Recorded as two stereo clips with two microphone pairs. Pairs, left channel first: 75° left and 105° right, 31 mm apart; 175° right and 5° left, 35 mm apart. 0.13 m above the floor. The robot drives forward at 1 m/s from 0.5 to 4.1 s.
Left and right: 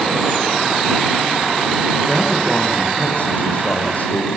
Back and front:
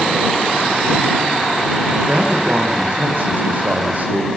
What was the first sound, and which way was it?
A man speaking, 30° left.